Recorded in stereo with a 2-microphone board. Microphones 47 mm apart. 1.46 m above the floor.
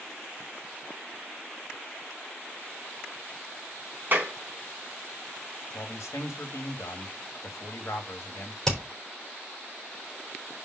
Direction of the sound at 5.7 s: 80° left.